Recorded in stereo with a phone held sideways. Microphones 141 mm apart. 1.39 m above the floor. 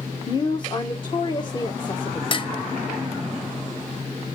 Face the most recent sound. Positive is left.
turn(degrees=35)  # may be behind; listen again after turning